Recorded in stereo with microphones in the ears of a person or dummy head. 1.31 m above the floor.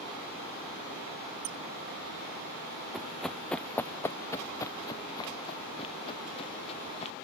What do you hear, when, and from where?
1.4 s a squeak: 70° right (ahead or behind)
2.9 s running footsteps: 5° left (ahead or behind); by 7.2 s 40° left (ahead or behind)